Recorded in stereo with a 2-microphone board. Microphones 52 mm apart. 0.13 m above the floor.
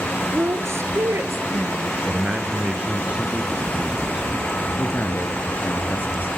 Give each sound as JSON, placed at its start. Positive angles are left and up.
{"t": 0.3, "sound": "a woman speaking", "side_deg": -55, "distance_m": 1.7}
{"t": 2.0, "sound": "a man speaking", "side_deg": -20, "distance_m": 1.6}
{"t": 4.8, "sound": "a man speaking", "side_deg": 45, "distance_m": 2.0}